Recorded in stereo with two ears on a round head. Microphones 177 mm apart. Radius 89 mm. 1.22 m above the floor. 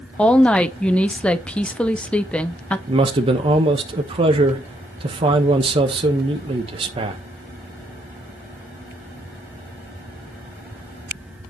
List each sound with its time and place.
0.2 s a woman speaking: 5° left (ahead or behind), 0.8 m
2.9 s a man speaking: 25° right (ahead or behind), 1.1 m